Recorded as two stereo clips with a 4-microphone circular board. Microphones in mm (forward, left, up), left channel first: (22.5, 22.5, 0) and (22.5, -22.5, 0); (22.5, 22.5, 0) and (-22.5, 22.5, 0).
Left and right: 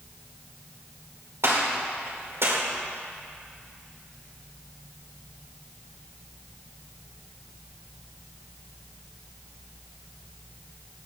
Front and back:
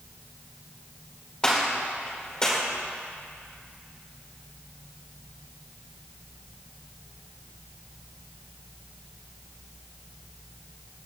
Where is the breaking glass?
No breaking glass in this recording.